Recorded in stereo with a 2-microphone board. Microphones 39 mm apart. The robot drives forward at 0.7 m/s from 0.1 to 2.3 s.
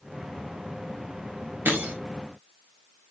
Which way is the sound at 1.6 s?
65° right (ahead or behind).